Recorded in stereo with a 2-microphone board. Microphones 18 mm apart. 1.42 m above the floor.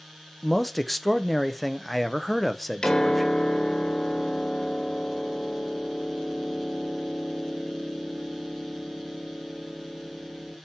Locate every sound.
0.4 s a man speaking: centre (ahead or behind), 0.6 m
2.8 s a piano: 40° left (ahead or behind), 1.4 m